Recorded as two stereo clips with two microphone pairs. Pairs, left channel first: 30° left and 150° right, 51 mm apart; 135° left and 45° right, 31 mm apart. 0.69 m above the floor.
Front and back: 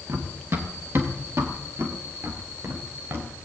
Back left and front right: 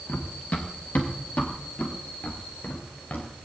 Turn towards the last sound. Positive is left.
turn(degrees=175)